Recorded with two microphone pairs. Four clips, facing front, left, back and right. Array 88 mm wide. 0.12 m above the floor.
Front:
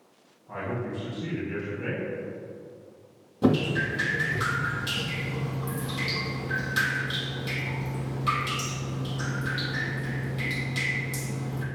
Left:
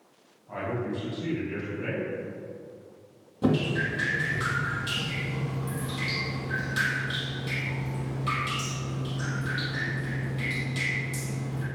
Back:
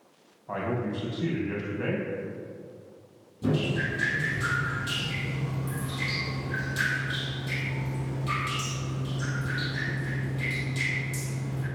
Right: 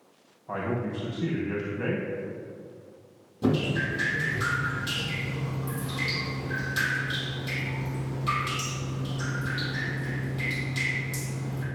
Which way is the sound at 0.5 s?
135° right.